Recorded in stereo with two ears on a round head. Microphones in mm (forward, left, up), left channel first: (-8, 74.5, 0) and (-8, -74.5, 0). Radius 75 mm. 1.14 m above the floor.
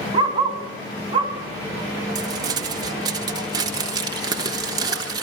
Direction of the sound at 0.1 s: 30° right (ahead or behind).